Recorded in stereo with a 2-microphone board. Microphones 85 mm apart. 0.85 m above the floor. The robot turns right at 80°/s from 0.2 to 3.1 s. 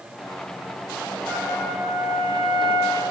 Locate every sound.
1.3 s a trumpet: 155° left, 5.5 m; by 3.0 s 65° right, 5.5 m